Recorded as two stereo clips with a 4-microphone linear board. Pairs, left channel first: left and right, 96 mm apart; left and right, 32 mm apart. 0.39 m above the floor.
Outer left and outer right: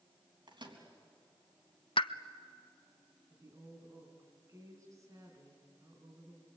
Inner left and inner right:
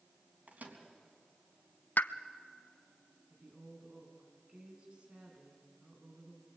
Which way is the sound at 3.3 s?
35° right (ahead or behind).